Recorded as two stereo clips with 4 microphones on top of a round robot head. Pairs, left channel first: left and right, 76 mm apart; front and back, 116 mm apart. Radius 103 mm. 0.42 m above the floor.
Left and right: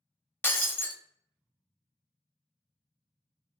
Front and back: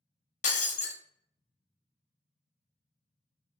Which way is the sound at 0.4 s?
20° left.